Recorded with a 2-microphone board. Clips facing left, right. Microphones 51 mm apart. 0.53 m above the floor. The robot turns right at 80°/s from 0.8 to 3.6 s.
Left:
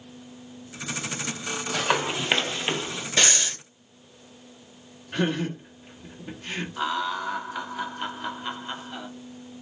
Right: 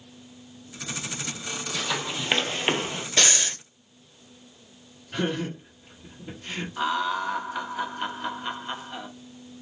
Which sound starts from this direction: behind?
Breathing, at 3.2 s.